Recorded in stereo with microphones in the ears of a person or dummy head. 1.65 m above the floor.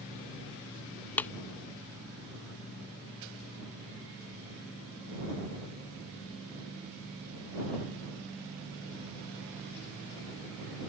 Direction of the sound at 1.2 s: 10° left (ahead or behind).